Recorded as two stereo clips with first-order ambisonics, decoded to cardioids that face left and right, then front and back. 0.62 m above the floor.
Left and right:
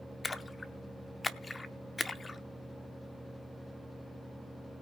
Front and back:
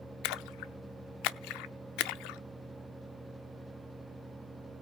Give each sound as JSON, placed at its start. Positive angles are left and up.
{"t": 0.2, "sound": "a splash", "azimuth_deg": 10, "distance_m": 0.5}